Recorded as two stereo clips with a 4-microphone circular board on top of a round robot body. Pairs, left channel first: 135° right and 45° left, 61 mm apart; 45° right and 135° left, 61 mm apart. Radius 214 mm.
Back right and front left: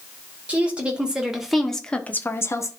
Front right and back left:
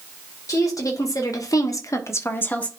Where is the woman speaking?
20° right, 3 m; by 2.7 s 115° right, 1.6 m.